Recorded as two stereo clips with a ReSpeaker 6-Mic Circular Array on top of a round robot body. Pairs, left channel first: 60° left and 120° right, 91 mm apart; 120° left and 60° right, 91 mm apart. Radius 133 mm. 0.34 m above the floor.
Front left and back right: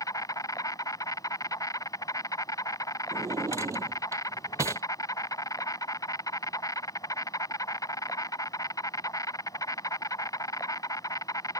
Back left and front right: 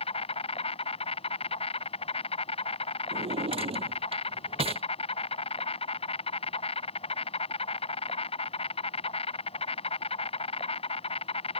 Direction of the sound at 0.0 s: 115° left.